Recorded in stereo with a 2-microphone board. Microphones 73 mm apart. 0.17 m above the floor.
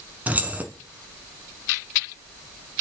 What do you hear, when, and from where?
0.3 s keys jangling: 20° right (ahead or behind), 1.3 m